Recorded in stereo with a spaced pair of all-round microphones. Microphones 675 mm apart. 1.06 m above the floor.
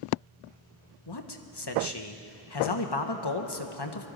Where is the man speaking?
35° left (ahead or behind), 1.0 m.